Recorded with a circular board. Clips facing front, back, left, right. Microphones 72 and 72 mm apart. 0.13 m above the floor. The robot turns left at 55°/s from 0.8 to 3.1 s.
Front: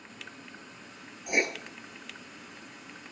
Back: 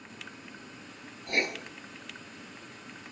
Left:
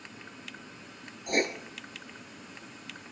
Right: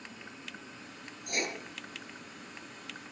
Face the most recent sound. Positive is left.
turn(degrees=-30)